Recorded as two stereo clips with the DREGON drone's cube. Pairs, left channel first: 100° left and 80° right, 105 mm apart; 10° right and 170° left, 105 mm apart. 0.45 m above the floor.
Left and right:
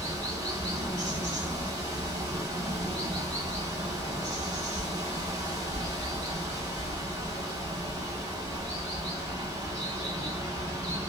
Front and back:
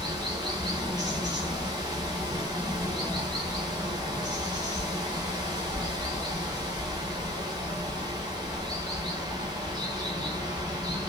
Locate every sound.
0.0 s running water: 135° right, 1.2 m